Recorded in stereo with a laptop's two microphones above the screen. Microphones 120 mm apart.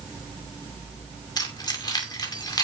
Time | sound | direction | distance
1.4 | keys jangling | 35° left (ahead or behind) | 2.5 m